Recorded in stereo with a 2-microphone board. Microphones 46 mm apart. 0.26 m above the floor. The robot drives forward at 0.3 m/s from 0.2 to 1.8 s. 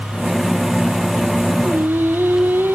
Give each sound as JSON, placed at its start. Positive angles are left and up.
{"t": 1.6, "sound": "singing", "side_deg": -50, "distance_m": 1.1}